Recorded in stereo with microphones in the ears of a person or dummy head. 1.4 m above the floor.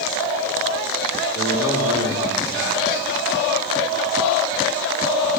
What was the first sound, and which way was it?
A man speaking, 85° left.